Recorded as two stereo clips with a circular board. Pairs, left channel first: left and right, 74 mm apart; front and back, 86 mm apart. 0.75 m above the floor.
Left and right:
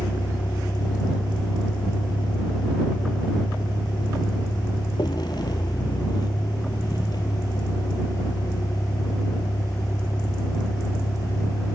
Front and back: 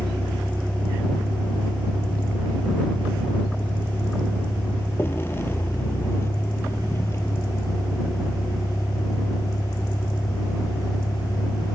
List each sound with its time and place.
0.0 s a vehicle: 80° left; by 11.8 s 50° left